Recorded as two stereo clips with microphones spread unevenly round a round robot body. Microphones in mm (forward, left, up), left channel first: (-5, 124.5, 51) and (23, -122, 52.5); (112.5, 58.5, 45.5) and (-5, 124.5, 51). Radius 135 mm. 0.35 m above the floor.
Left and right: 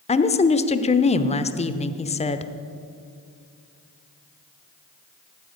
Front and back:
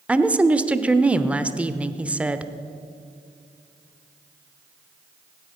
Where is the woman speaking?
75° left, 0.9 m.